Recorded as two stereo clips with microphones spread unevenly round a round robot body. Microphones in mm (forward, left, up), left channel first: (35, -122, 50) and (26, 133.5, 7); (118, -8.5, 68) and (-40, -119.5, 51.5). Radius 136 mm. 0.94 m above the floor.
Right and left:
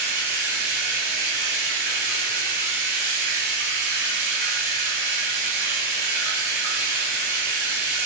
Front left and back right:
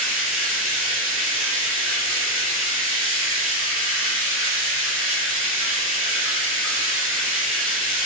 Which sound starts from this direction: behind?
Running water, at 0.0 s.